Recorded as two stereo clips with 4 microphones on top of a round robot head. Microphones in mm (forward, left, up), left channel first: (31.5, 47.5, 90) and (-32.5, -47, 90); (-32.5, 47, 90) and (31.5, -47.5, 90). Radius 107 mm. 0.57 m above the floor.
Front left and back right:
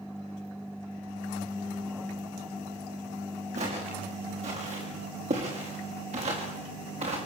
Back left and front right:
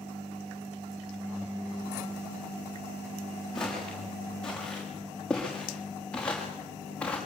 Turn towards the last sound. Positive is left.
turn(degrees=-155)